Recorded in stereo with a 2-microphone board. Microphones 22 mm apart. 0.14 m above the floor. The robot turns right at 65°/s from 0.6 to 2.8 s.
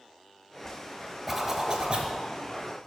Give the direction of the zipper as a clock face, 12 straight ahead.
6 o'clock.